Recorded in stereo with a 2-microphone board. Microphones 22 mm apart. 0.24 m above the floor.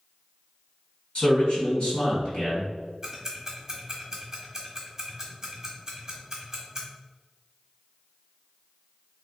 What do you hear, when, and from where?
1.1 s a man speaking: 55° left (ahead or behind), 1.9 m
3.0 s ticking: 25° right (ahead or behind), 1.2 m